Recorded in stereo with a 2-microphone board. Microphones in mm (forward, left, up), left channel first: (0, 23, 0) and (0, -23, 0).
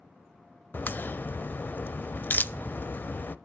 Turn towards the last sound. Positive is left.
turn(degrees=45)  # may be behind; listen again after turning